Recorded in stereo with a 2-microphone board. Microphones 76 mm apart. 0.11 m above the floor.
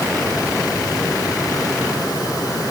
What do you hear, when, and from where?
Only background noise.